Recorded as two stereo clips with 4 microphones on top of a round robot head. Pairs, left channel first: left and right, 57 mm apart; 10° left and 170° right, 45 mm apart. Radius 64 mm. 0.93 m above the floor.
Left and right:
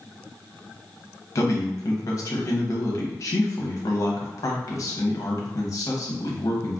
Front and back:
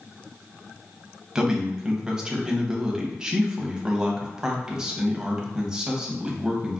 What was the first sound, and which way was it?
A man speaking, 120° left.